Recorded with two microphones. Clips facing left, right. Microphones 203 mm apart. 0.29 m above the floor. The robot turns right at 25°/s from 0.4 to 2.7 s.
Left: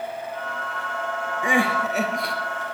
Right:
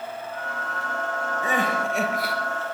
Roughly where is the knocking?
No knocking in this recording.